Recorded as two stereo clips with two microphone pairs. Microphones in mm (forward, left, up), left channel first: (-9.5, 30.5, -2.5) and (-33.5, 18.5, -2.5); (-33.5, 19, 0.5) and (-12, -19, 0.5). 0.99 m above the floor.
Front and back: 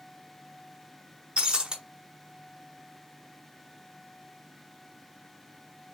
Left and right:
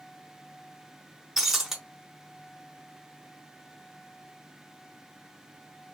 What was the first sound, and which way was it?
Breaking glass, 140° right.